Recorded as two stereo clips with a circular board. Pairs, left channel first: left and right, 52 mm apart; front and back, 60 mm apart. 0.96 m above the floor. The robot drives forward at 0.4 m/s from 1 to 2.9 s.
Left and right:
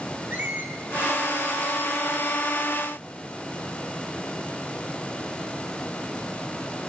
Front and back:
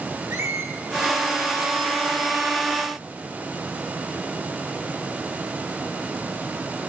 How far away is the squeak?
About 1.5 m.